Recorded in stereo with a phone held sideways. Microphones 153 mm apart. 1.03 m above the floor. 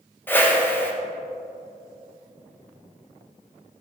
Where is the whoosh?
15° left (ahead or behind), 0.9 m.